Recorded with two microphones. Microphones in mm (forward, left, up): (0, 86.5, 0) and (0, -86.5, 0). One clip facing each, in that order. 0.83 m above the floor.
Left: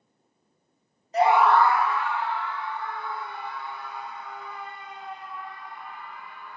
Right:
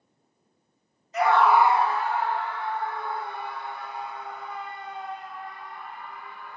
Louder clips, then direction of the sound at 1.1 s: Left 1 dB; 35° left (ahead or behind).